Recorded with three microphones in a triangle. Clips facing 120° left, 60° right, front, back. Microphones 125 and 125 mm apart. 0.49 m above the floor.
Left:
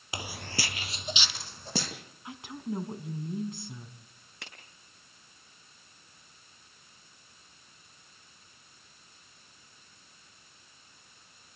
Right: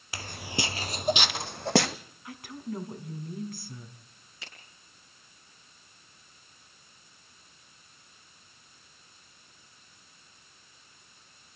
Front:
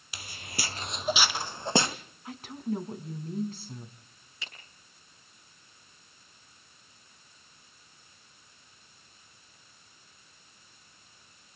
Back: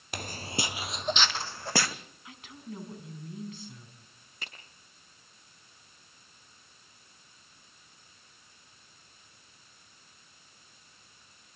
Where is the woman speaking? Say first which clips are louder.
Left 1 dB, front 11 dB; 50° left, 4.5 m.